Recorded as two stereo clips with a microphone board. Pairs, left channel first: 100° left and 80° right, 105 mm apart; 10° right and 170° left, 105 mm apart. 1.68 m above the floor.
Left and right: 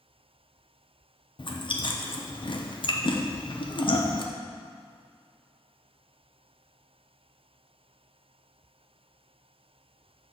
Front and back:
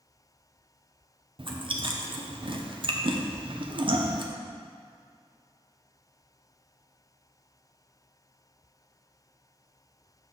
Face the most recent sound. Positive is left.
turn(degrees=135)